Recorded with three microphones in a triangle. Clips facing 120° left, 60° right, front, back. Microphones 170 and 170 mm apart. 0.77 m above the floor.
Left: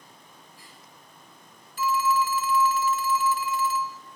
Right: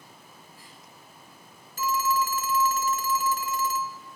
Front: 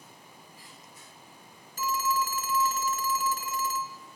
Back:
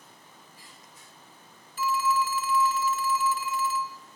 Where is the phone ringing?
30° right, 0.6 m.